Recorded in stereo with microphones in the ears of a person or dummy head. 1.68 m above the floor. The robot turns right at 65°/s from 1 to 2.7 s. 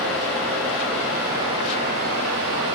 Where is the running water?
Straight behind, 4.5 m; by 2.8 s 70° right, 4.5 m.